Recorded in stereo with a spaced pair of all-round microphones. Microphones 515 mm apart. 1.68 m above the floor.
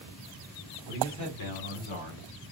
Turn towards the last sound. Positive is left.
turn(degrees=80)